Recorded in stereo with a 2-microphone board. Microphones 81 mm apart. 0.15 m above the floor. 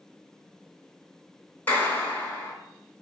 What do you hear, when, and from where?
1.7 s a clap: 25° left (ahead or behind), 1.4 m